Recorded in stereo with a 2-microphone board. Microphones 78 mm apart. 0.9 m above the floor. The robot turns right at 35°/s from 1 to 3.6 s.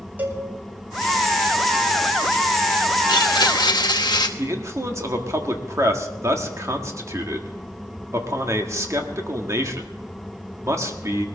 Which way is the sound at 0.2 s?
25° right (ahead or behind).